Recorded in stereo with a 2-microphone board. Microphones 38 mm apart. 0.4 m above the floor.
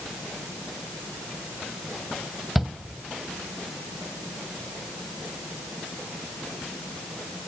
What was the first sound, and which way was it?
A shout, centre (ahead or behind).